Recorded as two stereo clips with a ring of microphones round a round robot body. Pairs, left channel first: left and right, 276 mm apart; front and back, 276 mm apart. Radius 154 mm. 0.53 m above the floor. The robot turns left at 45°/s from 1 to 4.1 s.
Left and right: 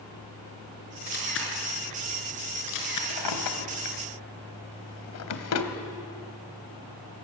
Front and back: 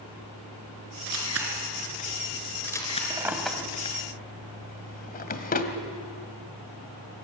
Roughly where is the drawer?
Left.